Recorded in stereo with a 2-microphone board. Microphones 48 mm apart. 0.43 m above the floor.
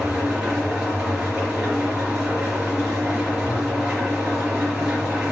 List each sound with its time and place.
0.0 s an engine running: 15° right (ahead or behind), 4.5 m